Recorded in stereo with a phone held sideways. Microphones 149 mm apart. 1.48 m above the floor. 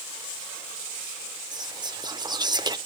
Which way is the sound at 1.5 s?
30° right (ahead or behind).